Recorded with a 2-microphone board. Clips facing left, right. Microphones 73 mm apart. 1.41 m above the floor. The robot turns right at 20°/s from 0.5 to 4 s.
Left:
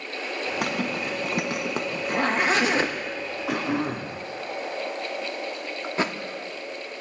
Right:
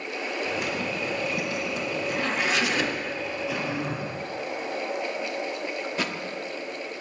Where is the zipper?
75° left (ahead or behind), 1.6 m; by 2.9 s 35° left (ahead or behind), 1.6 m.